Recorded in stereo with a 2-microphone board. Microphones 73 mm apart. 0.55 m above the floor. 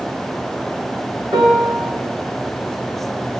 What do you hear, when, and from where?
1.3 s a piano: 75° right (ahead or behind), 3.5 m